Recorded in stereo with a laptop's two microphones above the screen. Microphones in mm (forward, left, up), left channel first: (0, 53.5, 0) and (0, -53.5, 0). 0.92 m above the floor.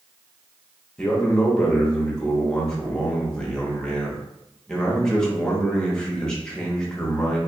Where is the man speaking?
5° left (ahead or behind), 0.8 m.